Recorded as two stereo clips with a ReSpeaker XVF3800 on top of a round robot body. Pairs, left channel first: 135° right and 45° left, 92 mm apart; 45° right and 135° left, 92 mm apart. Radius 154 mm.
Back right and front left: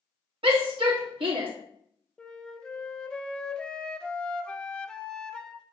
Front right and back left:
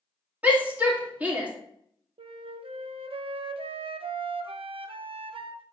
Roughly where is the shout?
Ahead left.